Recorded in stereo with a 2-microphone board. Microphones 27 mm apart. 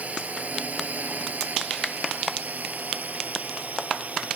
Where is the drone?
65° right (ahead or behind); by 4.4 s 55° right (ahead or behind).